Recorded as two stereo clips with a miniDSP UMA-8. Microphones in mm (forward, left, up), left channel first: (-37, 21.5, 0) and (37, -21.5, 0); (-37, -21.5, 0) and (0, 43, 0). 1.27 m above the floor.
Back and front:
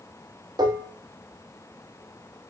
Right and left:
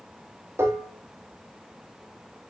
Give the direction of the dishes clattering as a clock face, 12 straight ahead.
12 o'clock.